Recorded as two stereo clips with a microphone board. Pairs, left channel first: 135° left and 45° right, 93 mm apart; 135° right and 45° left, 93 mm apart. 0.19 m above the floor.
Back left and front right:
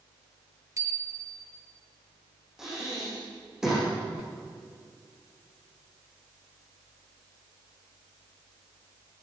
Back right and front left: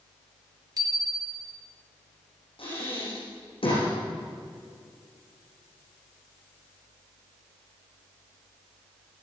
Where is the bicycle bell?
5° left, 2 m.